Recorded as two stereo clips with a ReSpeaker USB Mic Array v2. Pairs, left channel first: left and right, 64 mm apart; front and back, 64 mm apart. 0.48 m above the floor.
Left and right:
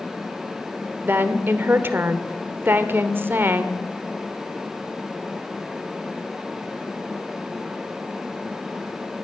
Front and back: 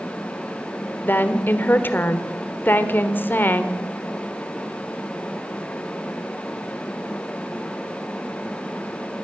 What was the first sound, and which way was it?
A woman speaking, 45° right.